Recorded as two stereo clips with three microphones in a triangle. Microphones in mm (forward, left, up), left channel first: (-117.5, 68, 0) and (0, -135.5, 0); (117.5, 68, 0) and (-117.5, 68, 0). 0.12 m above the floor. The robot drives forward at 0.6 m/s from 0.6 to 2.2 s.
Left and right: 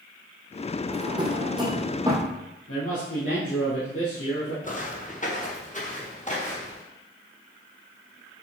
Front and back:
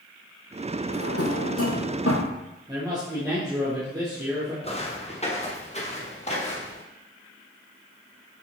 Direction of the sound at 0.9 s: 10° left.